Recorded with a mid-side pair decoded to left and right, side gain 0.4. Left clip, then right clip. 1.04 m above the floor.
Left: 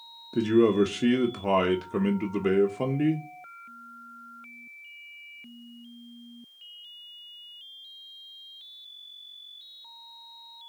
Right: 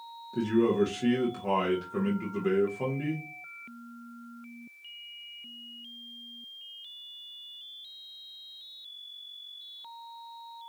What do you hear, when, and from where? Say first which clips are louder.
0.3 s a man speaking: left 4 dB; 60° left, 0.8 m